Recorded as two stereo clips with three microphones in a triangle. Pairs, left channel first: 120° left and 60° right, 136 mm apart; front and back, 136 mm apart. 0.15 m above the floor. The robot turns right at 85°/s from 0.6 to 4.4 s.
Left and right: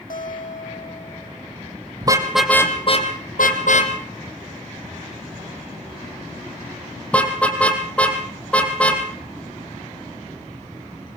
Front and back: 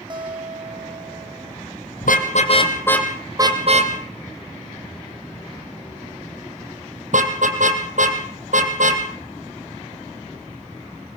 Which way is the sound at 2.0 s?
Straight ahead.